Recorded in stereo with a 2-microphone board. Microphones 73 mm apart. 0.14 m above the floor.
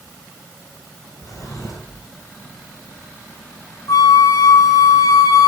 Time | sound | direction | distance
1.2 | a drawer | 55° left (ahead or behind) | 5.5 m
3.9 | a flute | 60° left (ahead or behind) | 5 m